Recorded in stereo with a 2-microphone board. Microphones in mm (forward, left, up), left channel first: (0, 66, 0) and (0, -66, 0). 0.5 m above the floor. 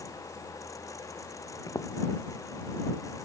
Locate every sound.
1.7 s footsteps: 25° left (ahead or behind)